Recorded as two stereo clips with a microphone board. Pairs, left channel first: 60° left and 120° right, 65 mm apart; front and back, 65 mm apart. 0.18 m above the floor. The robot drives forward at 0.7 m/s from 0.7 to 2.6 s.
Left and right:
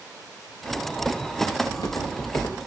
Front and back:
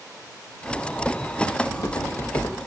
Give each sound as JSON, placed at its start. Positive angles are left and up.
{"t": 1.6, "sound": "footsteps", "azimuth_deg": 40, "distance_m": 2.5}